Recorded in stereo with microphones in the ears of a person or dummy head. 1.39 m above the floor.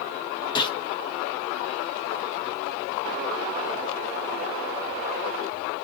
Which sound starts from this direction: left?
A gunshot, at 0.6 s.